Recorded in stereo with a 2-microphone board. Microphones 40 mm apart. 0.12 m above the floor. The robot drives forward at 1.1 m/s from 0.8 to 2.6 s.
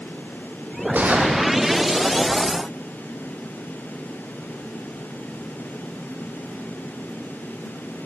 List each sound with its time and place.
0.9 s a gunshot: 45° right (ahead or behind), 6 m; by 2.0 s 35° right (ahead or behind), 7 m